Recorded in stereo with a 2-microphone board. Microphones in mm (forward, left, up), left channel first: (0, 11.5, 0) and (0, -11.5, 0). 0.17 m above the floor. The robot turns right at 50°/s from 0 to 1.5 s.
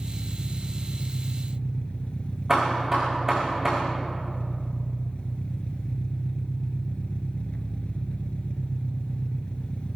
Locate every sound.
0.0 s an engine running: 10° right, 1.6 m; by 10.0 s 65° left, 1.6 m
2.5 s hammering: 20° right (ahead or behind), 6.5 m